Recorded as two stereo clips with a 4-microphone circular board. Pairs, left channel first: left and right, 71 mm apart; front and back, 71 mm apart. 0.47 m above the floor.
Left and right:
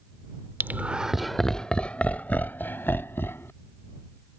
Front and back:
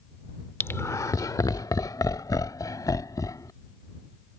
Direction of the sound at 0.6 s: 45° right.